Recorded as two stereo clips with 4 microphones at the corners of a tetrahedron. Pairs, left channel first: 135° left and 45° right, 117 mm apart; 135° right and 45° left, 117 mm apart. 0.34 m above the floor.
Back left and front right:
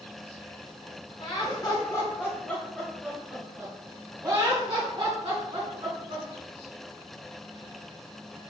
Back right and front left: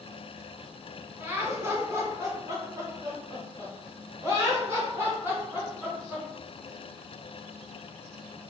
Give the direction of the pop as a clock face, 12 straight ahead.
No pop in this recording.